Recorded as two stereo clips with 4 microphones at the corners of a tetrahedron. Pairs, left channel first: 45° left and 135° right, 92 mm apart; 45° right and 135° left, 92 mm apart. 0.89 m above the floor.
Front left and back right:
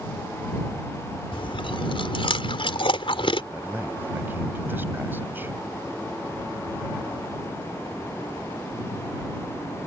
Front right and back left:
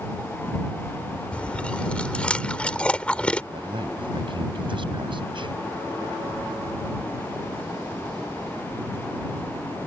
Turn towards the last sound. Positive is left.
turn(degrees=155)